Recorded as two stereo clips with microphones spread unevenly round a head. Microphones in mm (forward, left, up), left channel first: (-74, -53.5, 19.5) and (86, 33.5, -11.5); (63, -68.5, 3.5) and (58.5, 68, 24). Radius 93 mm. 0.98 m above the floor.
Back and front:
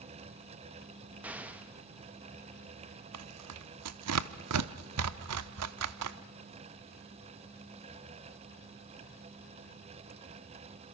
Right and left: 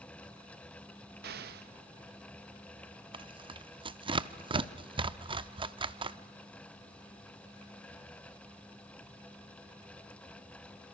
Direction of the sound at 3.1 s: 40° left.